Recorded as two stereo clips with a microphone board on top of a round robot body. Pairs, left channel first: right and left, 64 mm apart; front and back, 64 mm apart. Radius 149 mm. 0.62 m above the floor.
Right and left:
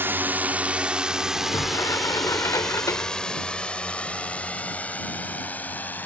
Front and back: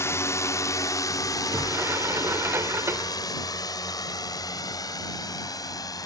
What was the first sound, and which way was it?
A drone, 40° left.